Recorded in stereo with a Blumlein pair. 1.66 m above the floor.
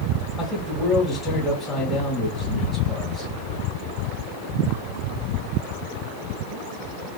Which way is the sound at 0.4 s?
20° left.